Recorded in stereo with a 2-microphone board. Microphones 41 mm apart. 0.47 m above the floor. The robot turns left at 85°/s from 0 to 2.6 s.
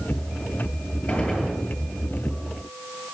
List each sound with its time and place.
1.1 s a gunshot: 50° left, 10 m; by 1.6 s 5° left, 10 m